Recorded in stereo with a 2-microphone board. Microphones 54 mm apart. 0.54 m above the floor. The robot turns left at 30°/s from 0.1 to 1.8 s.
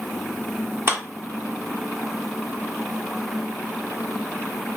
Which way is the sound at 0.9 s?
40° right (ahead or behind).